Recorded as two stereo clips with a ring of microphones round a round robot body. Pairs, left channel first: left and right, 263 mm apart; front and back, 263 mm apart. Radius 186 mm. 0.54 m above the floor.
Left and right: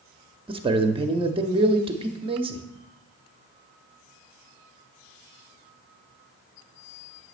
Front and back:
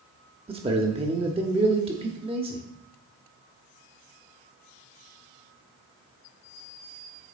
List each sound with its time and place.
0.5 s a man speaking: 135° right, 0.8 m